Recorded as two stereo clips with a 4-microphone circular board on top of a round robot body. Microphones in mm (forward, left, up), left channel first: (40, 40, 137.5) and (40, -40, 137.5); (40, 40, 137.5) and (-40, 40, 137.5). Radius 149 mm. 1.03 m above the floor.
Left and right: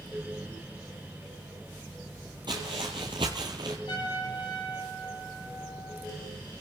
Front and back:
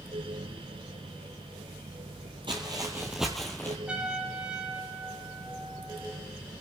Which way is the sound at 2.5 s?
140° right.